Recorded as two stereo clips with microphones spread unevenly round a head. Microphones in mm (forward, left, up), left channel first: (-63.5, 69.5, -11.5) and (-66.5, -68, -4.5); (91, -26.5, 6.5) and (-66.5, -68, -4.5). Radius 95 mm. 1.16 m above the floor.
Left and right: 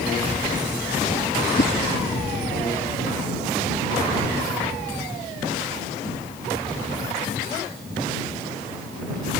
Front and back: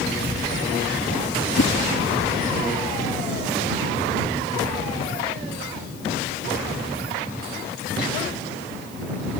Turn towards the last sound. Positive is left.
turn(degrees=45)